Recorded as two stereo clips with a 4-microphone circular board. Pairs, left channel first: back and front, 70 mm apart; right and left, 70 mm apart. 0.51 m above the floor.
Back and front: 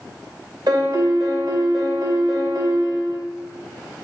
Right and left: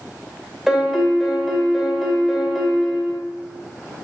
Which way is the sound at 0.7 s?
5° left.